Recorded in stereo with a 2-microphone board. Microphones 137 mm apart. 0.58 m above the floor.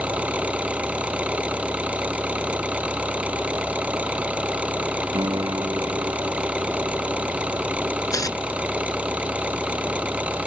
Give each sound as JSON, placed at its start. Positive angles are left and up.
{"t": 0.0, "sound": "an engine running", "side_deg": -10}
{"t": 5.1, "sound": "a piano", "side_deg": -30}
{"t": 8.1, "sound": "tearing paper", "side_deg": 25}